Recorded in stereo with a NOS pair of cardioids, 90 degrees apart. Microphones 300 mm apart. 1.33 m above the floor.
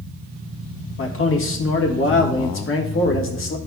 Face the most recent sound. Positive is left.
turn(degrees=45)